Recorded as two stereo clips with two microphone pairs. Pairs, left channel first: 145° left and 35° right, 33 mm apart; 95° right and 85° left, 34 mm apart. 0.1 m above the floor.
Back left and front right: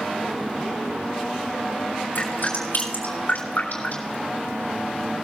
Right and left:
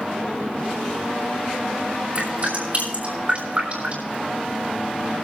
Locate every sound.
2.1 s dripping: 135° left, 6.5 m